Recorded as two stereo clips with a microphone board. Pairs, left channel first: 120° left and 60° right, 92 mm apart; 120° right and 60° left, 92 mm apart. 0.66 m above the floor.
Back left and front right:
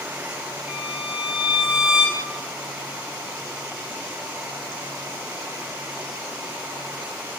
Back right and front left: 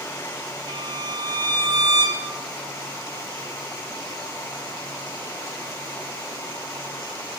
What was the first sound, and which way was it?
A violin, 20° left.